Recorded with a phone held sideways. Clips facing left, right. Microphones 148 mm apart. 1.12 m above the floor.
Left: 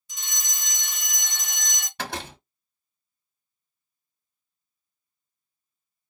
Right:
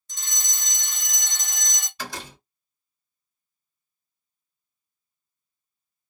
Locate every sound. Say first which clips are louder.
0.1 s a fire alarm: even; 10° left (ahead or behind), 1.0 m
2.0 s a door slam: left 3 dB; 65° left (ahead or behind), 1.1 m